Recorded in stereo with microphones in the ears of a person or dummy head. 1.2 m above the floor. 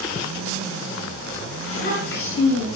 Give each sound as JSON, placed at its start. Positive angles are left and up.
{"t": 1.6, "sound": "a child speaking", "side_deg": 60, "distance_m": 8.0}